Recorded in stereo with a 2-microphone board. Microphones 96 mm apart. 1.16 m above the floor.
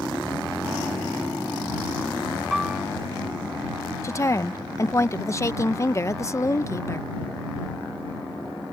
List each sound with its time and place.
2.5 s a piano: 5° right (ahead or behind)
4.0 s a woman speaking: 30° left (ahead or behind)